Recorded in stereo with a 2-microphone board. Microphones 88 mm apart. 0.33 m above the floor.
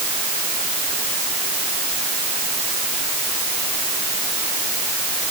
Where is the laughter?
No laughter in this recording.